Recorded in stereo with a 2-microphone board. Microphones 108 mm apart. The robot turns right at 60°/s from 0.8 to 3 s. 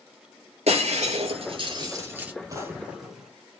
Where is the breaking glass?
80° right, 7 m; by 2.3 s 10° right (ahead or behind), 7 m.